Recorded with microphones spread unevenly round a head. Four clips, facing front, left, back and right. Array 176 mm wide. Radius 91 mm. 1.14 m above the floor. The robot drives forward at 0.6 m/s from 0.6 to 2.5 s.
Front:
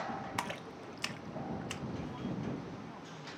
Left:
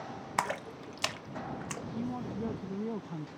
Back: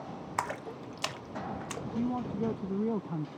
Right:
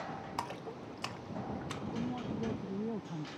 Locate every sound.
0.4 s a splash: 90° left; by 1.9 s 140° left
1.9 s a man speaking: 175° left